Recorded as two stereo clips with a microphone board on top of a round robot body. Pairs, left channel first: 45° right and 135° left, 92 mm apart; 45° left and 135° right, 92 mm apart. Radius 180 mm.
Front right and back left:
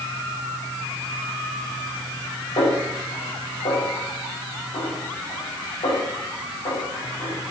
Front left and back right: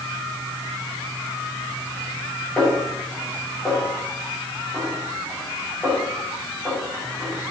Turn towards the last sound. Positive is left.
turn(degrees=-30)